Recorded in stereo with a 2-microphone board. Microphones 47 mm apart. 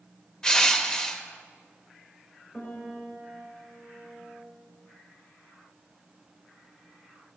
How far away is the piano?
About 2.5 m.